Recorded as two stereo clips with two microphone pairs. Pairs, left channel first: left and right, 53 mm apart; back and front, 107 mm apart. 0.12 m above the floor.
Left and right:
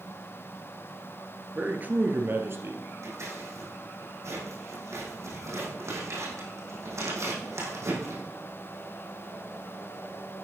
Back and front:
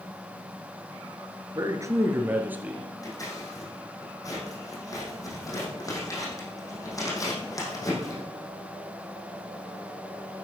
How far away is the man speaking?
About 1.7 m.